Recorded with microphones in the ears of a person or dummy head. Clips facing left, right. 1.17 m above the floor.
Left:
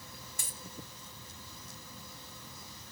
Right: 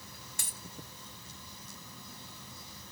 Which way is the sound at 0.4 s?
55° right (ahead or behind).